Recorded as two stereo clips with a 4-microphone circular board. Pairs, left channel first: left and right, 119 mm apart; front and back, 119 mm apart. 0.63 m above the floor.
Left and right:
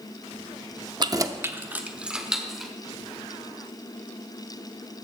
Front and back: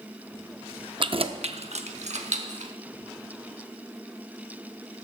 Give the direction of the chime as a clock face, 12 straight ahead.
No chime in this recording.